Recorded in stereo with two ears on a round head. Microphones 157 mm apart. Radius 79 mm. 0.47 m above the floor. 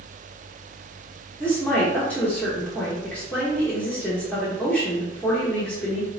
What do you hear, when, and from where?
1.4 s a woman speaking: 10° left (ahead or behind), 0.9 m